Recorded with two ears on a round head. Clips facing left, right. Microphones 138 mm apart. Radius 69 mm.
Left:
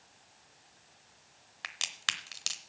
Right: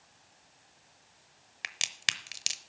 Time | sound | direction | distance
1.6 | a crack | 20° right (ahead or behind) | 0.7 m